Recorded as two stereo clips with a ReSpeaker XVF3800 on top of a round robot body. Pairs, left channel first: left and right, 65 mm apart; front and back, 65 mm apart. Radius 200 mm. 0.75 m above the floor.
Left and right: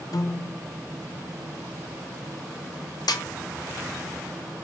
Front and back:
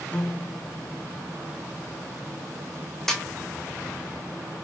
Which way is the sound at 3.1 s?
85° left.